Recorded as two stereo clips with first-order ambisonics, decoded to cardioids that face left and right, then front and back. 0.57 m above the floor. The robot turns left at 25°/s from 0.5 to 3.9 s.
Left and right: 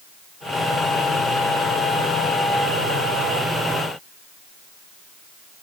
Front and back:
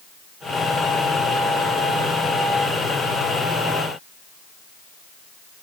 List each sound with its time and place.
Only background noise.